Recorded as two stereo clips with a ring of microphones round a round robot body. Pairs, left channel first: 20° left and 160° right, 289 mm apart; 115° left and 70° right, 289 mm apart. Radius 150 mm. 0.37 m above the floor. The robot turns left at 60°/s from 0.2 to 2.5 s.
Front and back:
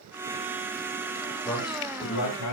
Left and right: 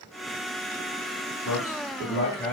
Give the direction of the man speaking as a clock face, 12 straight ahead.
9 o'clock.